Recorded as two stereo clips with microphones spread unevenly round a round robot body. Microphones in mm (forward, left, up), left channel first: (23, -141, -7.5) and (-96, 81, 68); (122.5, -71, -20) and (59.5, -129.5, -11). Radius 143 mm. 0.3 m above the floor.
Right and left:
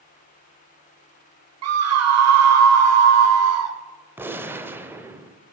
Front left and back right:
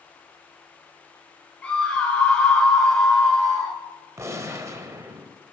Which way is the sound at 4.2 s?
130° right.